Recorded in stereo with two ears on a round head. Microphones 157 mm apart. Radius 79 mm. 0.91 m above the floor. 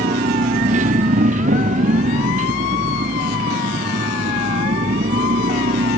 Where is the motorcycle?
45° right (ahead or behind).